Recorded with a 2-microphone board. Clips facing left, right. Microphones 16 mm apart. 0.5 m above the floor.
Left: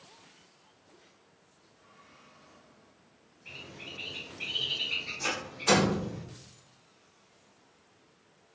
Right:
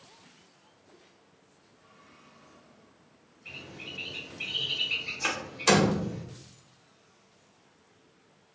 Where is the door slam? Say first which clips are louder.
Right 2 dB; 55° right (ahead or behind), 1.0 m.